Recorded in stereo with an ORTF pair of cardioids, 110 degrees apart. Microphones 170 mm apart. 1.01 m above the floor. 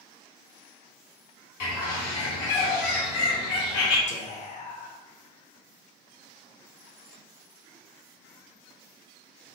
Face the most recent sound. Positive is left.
turn(degrees=45)